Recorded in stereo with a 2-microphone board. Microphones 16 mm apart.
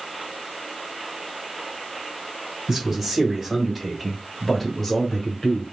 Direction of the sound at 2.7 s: 20° right (ahead or behind).